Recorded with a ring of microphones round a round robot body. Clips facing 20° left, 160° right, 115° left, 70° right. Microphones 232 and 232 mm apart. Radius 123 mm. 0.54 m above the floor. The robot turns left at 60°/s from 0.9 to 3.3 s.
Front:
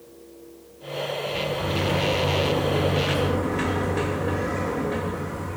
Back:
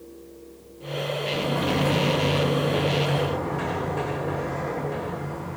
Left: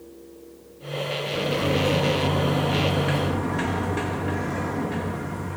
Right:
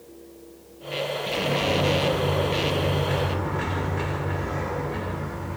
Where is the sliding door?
155° right, 8 m; by 5.6 s 90° left, 8 m.